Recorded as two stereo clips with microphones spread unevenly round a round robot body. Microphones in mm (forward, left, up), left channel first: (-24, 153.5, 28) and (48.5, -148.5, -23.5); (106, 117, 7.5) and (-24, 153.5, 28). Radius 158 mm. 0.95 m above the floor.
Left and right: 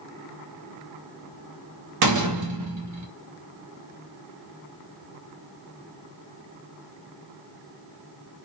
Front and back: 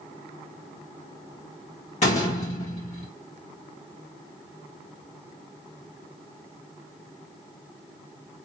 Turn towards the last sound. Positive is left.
turn(degrees=-55)